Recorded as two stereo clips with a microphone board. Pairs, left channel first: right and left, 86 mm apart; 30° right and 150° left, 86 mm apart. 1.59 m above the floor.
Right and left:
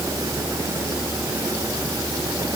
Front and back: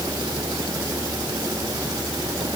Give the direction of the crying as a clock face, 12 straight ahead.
I don't hear crying.